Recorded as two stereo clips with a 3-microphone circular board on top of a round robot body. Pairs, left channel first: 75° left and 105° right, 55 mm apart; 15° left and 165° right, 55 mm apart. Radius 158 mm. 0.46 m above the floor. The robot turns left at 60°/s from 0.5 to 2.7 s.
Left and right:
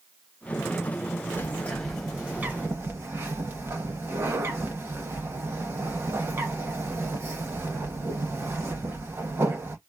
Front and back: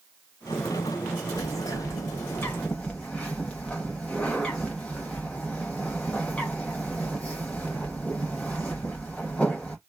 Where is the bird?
20° left, 0.7 m; by 9.8 s 60° right, 0.7 m.